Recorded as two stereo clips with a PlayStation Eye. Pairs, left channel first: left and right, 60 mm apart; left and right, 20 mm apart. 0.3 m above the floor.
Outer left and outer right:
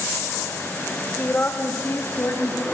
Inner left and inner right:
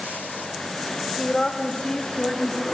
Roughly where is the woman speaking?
Left.